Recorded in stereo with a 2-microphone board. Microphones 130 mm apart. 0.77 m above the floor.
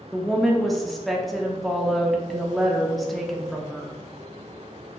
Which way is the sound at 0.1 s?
Centre (ahead or behind).